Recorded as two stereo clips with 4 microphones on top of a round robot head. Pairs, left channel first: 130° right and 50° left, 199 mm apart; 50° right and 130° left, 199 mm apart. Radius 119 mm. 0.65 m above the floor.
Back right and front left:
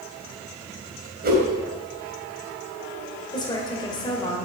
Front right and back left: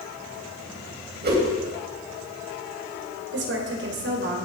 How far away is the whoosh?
About 3.5 m.